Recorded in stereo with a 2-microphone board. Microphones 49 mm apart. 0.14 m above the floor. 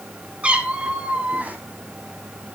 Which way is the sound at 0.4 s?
25° right (ahead or behind).